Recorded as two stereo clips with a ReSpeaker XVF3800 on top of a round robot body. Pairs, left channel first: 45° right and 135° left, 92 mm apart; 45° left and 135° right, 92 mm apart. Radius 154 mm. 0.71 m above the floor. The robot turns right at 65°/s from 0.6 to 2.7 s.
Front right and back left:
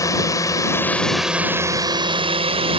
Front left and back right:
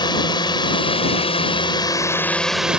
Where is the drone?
10° left; by 2.8 s 145° left.